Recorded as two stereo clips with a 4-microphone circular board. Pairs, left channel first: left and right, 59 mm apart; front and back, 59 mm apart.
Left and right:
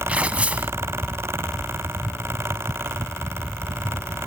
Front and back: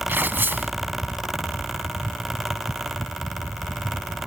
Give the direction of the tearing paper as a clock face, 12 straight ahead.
5 o'clock.